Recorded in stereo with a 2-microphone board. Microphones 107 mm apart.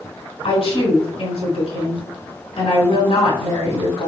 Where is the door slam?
I don't hear a door slam.